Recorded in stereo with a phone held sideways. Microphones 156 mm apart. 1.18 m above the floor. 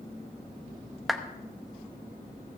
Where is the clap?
Centre (ahead or behind), 0.8 m.